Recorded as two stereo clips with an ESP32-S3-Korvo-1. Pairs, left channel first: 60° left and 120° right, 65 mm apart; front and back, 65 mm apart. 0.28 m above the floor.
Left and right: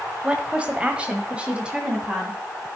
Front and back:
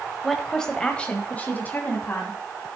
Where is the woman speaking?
85° right, 1.4 m; by 2.4 s 45° right, 2.5 m.